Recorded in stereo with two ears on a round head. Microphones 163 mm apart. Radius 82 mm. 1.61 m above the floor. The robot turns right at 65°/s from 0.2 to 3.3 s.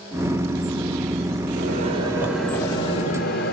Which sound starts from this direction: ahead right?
A microwave, at 1.6 s.